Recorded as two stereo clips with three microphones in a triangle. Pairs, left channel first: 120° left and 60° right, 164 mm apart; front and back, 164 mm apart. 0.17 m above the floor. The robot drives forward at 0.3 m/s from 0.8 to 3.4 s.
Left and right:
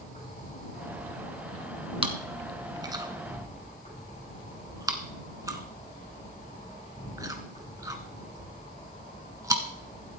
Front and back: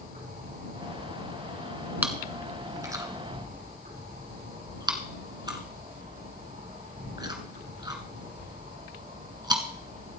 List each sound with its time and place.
0.0 s an insect: 160° left, 8 m; by 10.2 s 165° left, 9 m
2.0 s chewing: 105° right, 1.3 m; by 9.6 s 125° right, 1.5 m